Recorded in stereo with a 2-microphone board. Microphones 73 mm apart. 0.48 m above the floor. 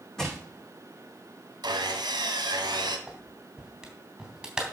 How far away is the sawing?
About 1.8 m.